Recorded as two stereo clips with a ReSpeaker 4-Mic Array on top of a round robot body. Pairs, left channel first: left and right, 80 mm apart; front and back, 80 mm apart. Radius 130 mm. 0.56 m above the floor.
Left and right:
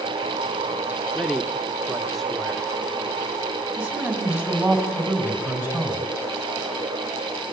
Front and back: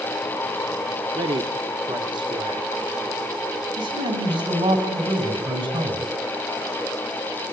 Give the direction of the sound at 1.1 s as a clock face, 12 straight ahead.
6 o'clock.